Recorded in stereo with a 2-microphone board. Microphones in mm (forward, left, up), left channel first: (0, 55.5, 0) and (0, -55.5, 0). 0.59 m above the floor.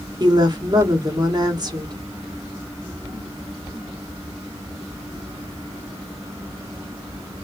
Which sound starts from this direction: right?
A woman speaking, at 0.2 s.